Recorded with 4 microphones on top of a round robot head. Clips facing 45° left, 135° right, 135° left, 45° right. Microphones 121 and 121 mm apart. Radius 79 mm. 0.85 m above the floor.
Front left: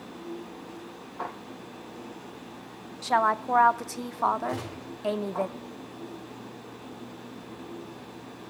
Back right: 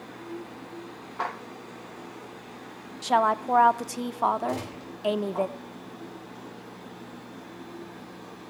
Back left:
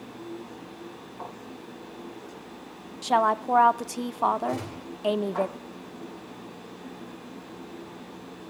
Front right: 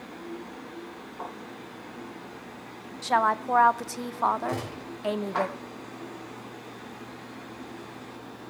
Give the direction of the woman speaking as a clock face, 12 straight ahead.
6 o'clock.